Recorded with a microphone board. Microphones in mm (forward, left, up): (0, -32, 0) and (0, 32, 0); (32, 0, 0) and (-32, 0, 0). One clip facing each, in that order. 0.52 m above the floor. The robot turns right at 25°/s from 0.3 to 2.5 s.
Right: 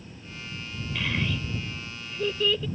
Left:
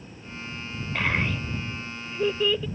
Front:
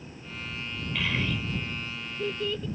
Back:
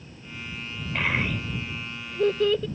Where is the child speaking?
130° left; by 2.7 s 170° left.